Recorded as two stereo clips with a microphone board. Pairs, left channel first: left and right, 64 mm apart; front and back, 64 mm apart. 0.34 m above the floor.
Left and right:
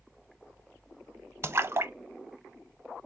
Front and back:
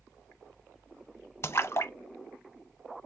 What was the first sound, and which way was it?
A splash, 45° right.